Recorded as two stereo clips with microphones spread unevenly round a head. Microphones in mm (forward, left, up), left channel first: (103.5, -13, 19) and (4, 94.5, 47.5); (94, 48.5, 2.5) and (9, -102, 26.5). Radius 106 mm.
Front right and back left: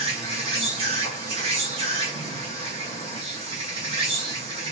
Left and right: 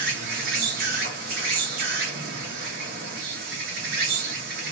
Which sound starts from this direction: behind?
An insect, at 0.0 s.